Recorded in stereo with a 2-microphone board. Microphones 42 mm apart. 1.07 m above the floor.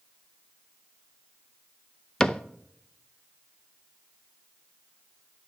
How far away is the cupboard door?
About 0.6 m.